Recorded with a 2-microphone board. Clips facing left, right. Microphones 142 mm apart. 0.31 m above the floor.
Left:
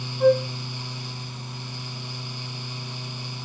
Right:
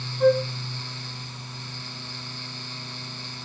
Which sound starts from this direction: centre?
A flute, at 0.2 s.